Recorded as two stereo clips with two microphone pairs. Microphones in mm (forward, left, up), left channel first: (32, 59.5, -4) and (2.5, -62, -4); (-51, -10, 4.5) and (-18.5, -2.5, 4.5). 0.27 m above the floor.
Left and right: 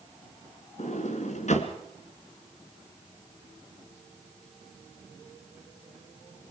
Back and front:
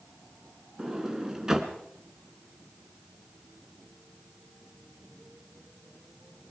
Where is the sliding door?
85° left, 2 m.